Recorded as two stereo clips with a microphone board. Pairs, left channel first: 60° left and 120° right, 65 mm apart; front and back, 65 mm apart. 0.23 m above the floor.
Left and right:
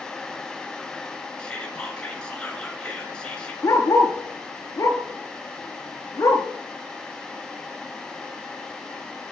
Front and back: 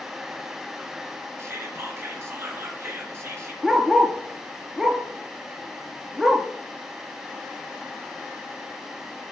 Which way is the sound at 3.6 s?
95° left.